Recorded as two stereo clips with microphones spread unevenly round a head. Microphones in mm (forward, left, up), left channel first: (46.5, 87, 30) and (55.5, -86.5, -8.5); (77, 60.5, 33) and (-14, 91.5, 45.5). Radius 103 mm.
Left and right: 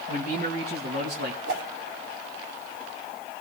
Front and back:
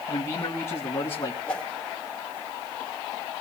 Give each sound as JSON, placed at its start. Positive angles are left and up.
{"t": 0.1, "sound": "a man speaking", "azimuth_deg": -45, "distance_m": 1.7}
{"t": 1.5, "sound": "a whoosh", "azimuth_deg": -95, "distance_m": 3.0}